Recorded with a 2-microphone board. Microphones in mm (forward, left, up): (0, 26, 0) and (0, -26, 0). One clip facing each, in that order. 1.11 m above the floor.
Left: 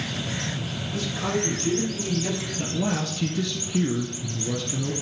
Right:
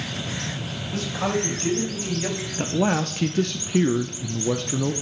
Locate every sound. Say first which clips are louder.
0.9 s a man speaking: right 2 dB; 80° right, 4.5 m; by 2.5 s 70° right (ahead or behind), 4.5 m
2.6 s a man speaking: right 6 dB; 50° right (ahead or behind), 0.6 m